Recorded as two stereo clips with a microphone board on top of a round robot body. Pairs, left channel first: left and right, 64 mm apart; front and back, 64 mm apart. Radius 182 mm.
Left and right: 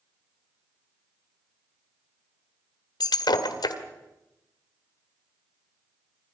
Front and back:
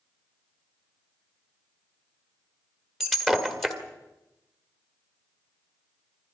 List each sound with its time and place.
3.0 s breaking glass: 85° left, 1.4 m